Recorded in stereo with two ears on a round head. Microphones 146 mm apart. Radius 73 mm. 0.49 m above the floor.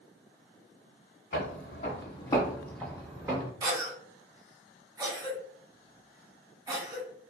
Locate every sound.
1.3 s footsteps: 60° left (ahead or behind), 1.1 m; by 3.5 s 20° right (ahead or behind), 1.1 m
3.6 s a cough: 20° right (ahead or behind), 0.8 m